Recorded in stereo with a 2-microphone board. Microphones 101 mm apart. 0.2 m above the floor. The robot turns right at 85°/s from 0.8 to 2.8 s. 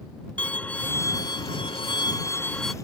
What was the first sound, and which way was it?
A violin, 15° left.